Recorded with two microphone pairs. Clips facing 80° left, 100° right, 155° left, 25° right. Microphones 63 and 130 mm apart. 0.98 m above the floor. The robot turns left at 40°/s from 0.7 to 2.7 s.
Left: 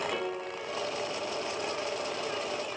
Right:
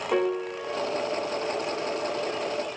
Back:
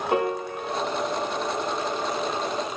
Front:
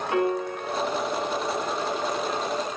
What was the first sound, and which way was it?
A piano, 150° right.